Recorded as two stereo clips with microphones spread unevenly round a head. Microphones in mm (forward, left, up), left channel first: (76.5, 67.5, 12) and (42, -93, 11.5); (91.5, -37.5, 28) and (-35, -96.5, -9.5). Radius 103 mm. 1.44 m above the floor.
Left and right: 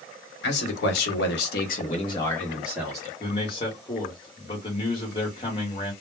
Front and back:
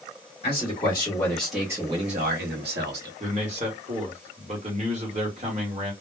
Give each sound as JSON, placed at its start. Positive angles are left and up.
{"t": 0.4, "sound": "a man speaking", "azimuth_deg": 80, "distance_m": 1.1}
{"t": 3.2, "sound": "a man speaking", "azimuth_deg": 145, "distance_m": 0.9}